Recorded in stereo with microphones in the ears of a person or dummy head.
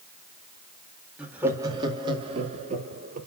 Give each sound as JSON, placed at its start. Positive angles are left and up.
{"t": 1.2, "sound": "laughter", "side_deg": -5, "distance_m": 2.0}